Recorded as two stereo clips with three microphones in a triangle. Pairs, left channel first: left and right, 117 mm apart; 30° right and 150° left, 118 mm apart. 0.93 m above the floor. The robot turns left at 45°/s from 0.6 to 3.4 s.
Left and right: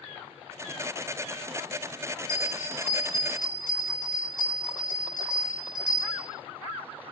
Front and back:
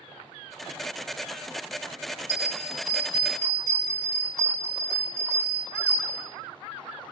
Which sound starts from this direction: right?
A bell, at 2.3 s.